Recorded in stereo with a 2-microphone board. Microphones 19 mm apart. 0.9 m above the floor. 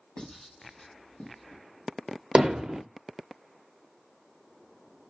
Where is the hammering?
45° right (ahead or behind), 0.8 m.